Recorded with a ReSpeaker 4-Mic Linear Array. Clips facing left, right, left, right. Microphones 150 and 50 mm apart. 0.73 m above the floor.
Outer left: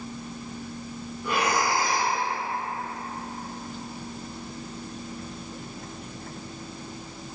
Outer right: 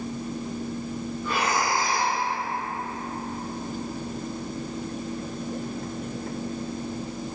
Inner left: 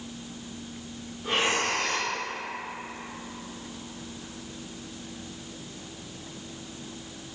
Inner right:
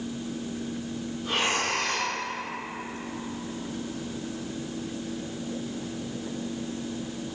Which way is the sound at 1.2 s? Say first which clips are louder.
Outer left 1 dB, inner left 1 dB; 15° left (ahead or behind).